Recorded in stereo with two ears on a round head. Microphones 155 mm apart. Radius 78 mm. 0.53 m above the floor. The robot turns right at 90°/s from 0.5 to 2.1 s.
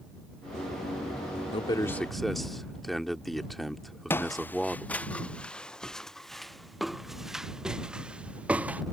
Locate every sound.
1.5 s a man speaking: 125° left; by 4.9 s straight behind
4.1 s footsteps: 10° left (ahead or behind); by 8.8 s 10° right (ahead or behind)